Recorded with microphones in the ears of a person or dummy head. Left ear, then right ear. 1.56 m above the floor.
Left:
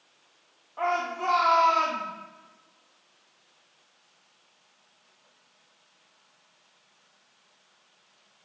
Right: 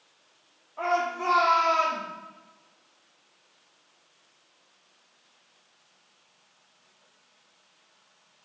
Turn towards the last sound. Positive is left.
turn(degrees=15)  # may be behind; listen again after turning